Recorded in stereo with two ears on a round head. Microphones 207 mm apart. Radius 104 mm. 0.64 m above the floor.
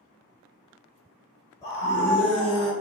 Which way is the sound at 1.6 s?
15° left (ahead or behind).